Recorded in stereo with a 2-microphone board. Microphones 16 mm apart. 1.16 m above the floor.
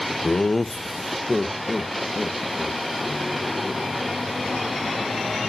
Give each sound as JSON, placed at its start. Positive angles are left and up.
{"t": 0.2, "sound": "laughter", "side_deg": 50, "distance_m": 0.7}